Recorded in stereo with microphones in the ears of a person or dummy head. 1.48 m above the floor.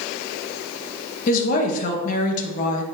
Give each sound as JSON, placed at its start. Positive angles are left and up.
{"t": 1.3, "sound": "a woman speaking", "side_deg": 35, "distance_m": 2.0}